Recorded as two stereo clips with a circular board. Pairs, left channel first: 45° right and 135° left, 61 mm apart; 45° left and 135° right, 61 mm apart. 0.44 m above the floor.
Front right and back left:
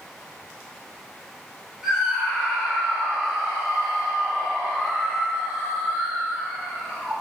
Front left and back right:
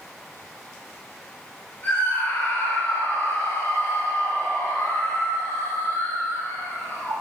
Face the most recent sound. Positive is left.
turn(degrees=65)